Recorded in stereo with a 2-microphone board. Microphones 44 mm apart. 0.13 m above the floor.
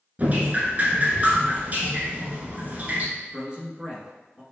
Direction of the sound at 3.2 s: 20° right (ahead or behind).